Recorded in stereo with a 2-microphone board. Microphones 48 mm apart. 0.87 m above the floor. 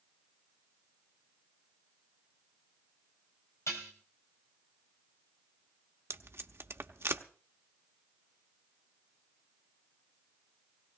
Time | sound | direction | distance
3.7 | dishes clattering | 85° left | 3 m
6.1 | tape being pulled | 55° right (ahead or behind) | 0.8 m